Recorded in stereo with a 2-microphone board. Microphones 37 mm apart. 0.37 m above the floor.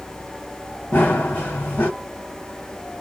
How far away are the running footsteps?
About 1.2 m.